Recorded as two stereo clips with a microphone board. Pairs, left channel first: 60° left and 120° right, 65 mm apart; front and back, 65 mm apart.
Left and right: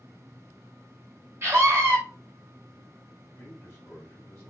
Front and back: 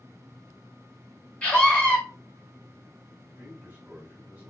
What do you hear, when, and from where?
1.4 s a scream: 70° right, 2.5 m
3.4 s a man speaking: 115° left, 3.5 m